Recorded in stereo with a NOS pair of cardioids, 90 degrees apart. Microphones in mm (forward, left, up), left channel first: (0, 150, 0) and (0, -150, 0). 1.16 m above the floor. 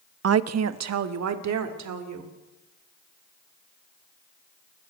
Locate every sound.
0.2 s a woman speaking: 50° right, 0.9 m; by 2.3 s 60° right, 3.5 m